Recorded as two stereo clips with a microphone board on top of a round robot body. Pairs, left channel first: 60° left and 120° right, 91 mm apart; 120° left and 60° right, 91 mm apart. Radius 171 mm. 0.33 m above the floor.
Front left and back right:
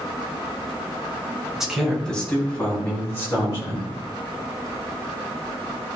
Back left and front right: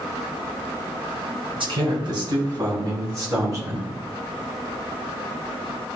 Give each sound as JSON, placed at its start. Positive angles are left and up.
{"t": 1.6, "sound": "a man speaking", "azimuth_deg": -40, "distance_m": 2.5}